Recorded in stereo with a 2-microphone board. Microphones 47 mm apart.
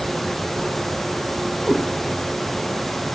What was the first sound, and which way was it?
A cat meowing, centre (ahead or behind).